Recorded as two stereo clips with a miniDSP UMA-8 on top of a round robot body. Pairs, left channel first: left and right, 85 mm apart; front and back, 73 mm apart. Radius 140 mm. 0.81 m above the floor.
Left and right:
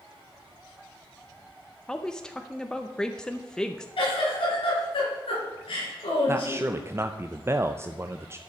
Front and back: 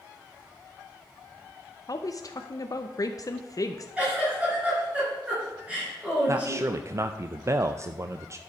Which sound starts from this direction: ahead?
A woman speaking, at 1.9 s.